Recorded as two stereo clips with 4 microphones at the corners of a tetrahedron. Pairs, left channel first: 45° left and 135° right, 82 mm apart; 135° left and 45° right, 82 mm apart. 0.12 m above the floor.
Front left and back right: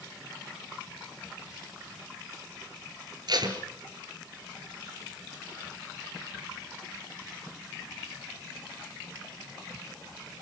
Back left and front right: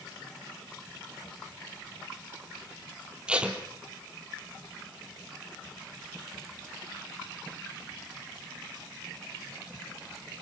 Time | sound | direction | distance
3.3 | tape being pulled | 120° right | 3 m